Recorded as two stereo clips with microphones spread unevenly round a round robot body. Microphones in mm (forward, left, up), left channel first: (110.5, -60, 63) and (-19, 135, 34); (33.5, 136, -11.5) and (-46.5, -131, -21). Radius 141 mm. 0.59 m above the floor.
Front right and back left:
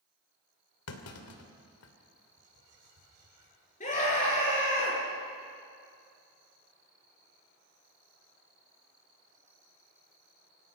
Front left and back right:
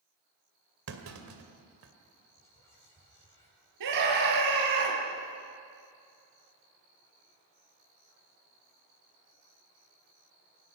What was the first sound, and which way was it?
A clunk, 70° right.